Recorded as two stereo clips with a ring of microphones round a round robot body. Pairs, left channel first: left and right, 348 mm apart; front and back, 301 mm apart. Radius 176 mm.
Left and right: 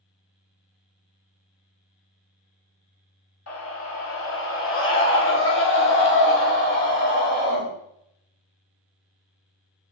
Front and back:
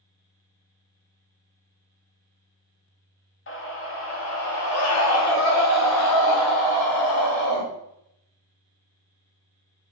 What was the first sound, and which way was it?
A scream, 45° left.